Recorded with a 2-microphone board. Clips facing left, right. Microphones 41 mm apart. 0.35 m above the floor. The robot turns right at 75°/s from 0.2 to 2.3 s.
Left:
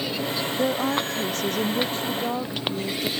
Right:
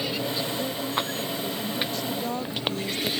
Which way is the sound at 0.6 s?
35° left.